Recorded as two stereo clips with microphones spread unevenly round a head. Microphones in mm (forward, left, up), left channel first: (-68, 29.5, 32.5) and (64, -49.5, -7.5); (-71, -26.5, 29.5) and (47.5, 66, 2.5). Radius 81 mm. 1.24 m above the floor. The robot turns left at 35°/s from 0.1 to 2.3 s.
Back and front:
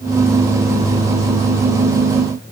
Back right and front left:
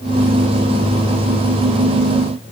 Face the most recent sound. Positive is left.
No sound to turn to.